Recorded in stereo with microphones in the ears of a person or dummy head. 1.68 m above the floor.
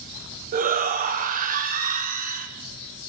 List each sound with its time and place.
0.5 s a shout: 40° right (ahead or behind), 0.7 m